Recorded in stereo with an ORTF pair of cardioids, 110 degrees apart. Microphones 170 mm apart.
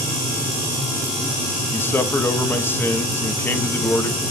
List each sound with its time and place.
1.7 s a man speaking: 15° left, 1.4 m